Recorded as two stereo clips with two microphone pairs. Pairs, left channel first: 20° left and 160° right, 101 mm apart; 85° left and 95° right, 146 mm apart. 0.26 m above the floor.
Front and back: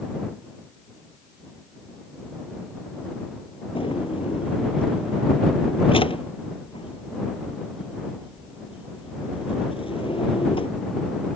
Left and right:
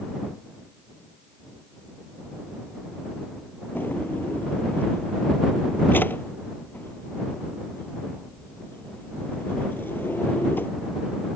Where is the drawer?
5° left.